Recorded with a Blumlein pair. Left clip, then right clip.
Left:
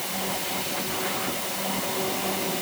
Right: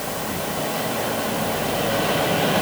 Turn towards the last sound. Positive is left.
No sound to turn to.